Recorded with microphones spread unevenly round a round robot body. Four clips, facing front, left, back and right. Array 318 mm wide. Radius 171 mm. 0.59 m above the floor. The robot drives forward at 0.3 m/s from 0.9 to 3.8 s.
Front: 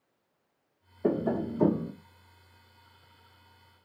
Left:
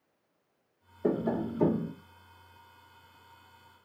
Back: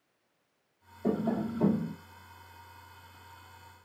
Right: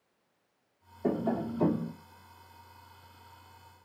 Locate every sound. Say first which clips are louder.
1.0 s tapping: left 1 dB, front 2 dB; 20° left, 1.1 m; by 1.9 s 25° left, 1.0 m